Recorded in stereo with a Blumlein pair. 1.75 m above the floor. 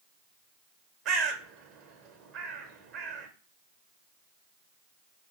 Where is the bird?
35° right, 0.7 m.